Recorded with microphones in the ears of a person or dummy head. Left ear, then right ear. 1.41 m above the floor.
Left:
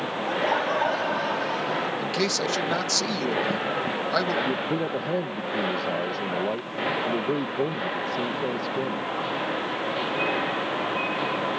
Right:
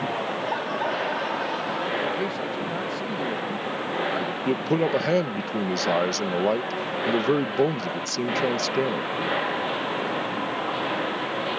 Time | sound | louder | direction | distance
0.3 | laughter | left 3 dB | 15° left (ahead or behind) | ?
2.0 | a man speaking | left 1 dB | 85° left | ?
4.5 | a man speaking | right 3 dB | 70° right (ahead or behind) | ?